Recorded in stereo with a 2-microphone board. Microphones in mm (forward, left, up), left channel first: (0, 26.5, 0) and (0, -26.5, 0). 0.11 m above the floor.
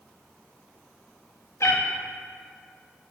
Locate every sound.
1.6 s a cat meowing: 70° left (ahead or behind), 1.8 m